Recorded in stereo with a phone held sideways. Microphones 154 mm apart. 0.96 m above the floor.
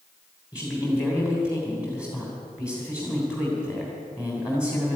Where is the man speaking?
20° left (ahead or behind), 3 m.